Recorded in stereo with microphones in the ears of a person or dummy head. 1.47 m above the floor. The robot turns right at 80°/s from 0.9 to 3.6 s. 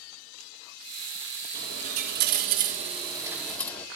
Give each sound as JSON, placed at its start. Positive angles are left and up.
{"t": 1.5, "sound": "a dropped coin", "azimuth_deg": -155, "distance_m": 1.3}